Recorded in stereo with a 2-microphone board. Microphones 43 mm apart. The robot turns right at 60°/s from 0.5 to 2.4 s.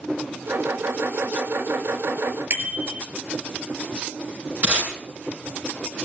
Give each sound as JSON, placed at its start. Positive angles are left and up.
{"t": 2.5, "sound": "a bicycle bell", "side_deg": -45, "distance_m": 5.5}
{"t": 4.6, "sound": "tape being pulled", "side_deg": -45, "distance_m": 6.5}